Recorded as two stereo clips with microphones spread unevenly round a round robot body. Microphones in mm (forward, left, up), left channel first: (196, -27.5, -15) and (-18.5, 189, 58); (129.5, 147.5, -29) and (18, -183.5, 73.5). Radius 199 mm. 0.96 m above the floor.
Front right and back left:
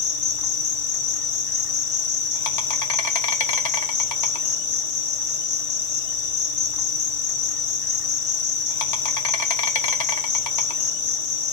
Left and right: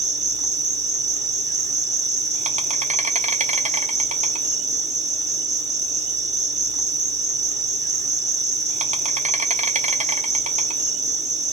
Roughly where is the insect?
Ahead right.